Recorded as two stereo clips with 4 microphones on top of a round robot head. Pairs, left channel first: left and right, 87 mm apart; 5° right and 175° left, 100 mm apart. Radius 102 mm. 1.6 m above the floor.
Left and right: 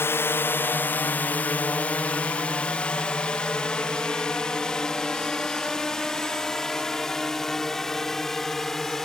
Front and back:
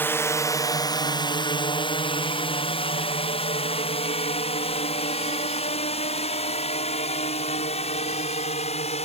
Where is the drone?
45° left; by 9.1 s straight ahead.